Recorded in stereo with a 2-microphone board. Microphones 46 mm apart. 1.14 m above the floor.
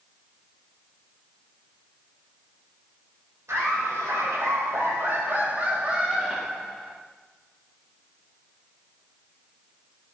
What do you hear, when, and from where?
3.5 s laughter: 80° right, 1.5 m; by 7.0 s 5° left (ahead or behind), 1.1 m